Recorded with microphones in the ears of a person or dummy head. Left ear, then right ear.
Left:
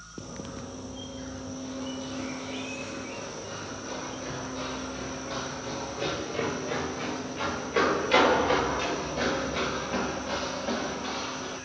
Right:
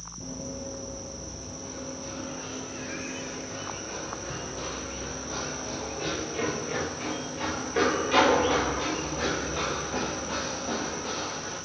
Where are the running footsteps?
20° left (ahead or behind), 2.5 m; by 11.6 s 45° left (ahead or behind), 8 m.